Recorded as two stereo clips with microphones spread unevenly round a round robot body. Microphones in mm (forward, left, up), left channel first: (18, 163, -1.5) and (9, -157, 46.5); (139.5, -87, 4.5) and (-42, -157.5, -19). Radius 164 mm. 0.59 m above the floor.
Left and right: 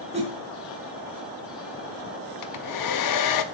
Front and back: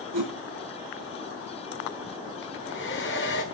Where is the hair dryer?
75° left, 1.4 m.